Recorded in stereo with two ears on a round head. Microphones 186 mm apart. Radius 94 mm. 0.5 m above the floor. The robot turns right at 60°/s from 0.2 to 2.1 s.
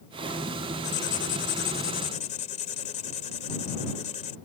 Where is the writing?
65° left; by 4.3 s 140° left.